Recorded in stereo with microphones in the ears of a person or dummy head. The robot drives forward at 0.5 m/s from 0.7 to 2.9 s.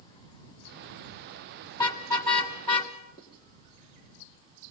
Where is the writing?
25° left (ahead or behind), 3.5 m.